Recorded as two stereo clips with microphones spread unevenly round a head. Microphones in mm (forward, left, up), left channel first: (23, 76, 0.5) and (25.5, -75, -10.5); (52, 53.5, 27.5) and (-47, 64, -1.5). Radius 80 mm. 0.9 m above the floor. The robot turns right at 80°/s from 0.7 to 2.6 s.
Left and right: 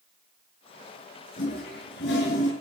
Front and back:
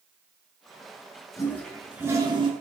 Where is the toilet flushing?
50° left, 6.5 m; by 2.5 s 140° left, 6.5 m.